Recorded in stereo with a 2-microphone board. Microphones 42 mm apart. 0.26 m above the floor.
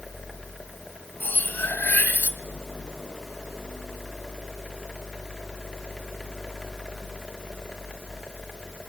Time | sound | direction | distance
1.2 | cutlery clinking | 45° left (ahead or behind) | 1.1 m